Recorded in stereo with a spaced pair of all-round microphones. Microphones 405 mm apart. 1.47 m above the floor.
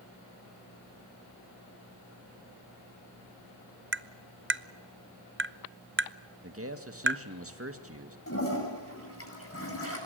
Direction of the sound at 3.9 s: 30° right (ahead or behind).